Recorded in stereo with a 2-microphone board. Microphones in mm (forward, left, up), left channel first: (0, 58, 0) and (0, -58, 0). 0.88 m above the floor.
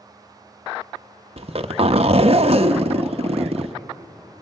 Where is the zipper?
55° right (ahead or behind), 0.9 m.